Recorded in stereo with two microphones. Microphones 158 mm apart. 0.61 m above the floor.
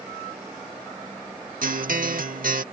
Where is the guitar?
60° right (ahead or behind).